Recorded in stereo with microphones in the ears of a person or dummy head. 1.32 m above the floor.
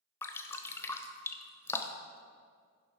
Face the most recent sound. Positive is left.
turn(degrees=10)  # may be behind; listen again after turning